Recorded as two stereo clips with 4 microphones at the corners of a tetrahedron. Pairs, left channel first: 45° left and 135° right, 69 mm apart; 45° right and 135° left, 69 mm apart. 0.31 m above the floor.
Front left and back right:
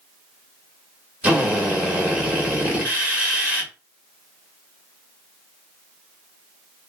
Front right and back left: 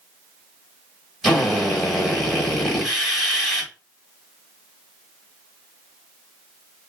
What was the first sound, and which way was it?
A drill, 125° right.